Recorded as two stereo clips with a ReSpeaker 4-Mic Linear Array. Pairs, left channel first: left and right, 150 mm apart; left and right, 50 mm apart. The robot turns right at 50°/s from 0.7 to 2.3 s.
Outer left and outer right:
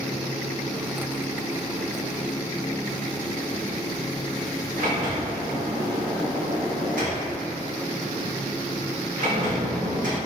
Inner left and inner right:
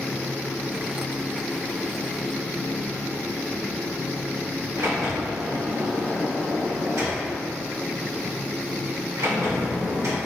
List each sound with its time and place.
4.8 s a sliding door: 70° right (ahead or behind), 0.9 m